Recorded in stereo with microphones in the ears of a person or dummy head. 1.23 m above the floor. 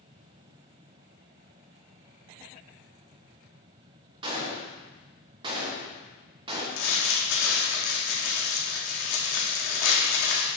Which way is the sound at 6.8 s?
60° left (ahead or behind).